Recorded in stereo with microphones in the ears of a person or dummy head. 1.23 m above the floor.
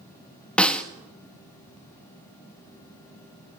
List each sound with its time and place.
0.6 s a snare drum: 5° left (ahead or behind), 1.3 m